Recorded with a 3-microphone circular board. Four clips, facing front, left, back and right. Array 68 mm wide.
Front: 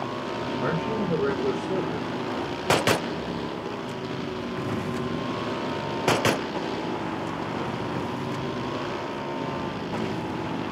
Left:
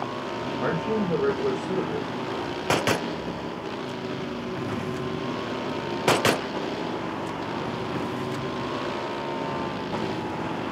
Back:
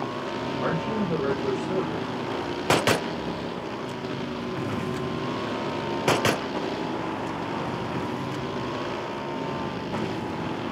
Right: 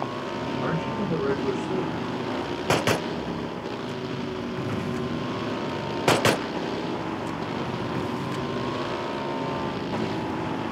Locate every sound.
0.6 s a man speaking: 75° left, 5 m